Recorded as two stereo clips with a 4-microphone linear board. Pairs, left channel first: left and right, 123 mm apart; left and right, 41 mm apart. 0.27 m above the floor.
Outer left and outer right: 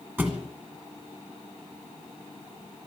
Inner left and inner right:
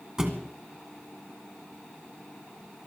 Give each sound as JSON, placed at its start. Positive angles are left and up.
{"t": 0.2, "sound": "a thud", "side_deg": -15, "distance_m": 2.0}